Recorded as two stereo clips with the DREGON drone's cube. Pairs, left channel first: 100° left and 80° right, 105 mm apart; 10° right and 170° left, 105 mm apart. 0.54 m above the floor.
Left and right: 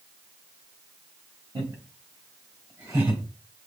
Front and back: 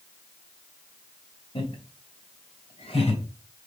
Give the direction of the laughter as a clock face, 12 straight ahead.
1 o'clock.